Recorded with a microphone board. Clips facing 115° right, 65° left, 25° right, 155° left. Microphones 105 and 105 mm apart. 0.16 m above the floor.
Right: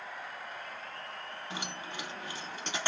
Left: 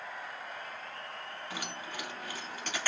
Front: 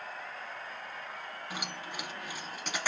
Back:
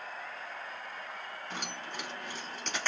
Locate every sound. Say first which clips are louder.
1.5 s keys jangling: right 1 dB, even; 95° right, 0.7 m